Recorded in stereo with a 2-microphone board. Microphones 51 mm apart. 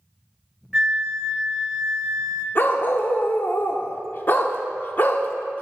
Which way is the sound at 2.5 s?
45° left (ahead or behind).